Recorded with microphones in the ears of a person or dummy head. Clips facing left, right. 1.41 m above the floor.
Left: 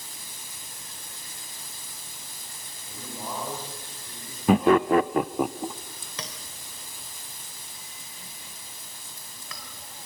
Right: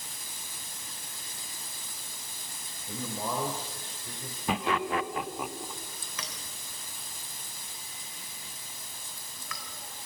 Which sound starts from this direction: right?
A man speaking, at 2.9 s.